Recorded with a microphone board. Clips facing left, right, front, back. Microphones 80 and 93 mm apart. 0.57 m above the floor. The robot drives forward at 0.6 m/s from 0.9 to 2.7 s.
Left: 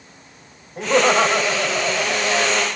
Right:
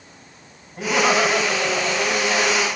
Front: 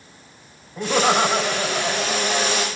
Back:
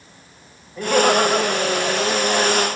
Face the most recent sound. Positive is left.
turn(degrees=85)